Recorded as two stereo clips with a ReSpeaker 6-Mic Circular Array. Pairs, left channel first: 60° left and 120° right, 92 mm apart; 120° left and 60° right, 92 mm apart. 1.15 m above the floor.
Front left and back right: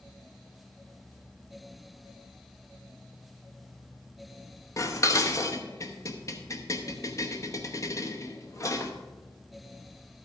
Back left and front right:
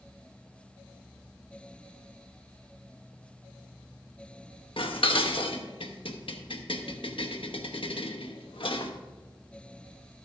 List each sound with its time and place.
4.8 s dishes clattering: 110° left, 0.9 m